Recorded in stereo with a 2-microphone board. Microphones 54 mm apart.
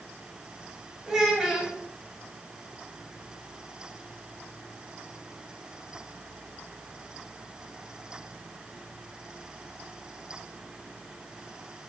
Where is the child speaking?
10° right (ahead or behind), 0.6 m.